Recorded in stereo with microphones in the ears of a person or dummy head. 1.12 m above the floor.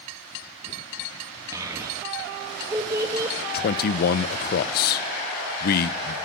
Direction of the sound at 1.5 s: 15° right (ahead or behind).